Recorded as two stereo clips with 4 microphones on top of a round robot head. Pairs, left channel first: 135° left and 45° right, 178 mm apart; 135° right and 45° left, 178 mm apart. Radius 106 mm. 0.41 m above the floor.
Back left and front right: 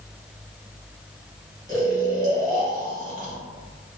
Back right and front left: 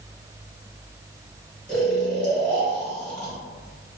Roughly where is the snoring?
Ahead right.